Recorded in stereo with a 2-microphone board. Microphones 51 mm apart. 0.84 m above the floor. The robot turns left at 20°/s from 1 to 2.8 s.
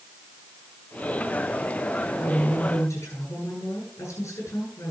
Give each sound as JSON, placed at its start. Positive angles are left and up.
{"t": 2.2, "sound": "a woman speaking", "side_deg": 65, "distance_m": 7.5}